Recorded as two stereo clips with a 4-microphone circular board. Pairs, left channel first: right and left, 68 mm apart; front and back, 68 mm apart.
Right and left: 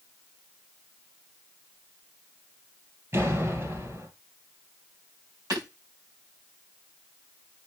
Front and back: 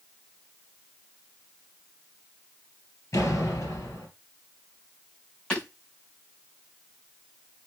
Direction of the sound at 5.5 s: 75° left.